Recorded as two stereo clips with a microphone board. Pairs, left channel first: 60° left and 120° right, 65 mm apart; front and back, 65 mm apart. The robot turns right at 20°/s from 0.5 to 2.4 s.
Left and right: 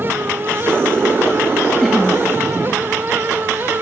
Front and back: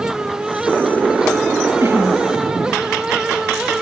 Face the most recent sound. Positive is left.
turn(degrees=160)